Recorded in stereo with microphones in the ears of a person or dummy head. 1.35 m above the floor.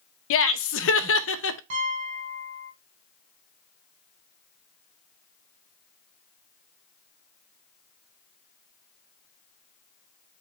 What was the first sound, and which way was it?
Laughter, 70° left (ahead or behind).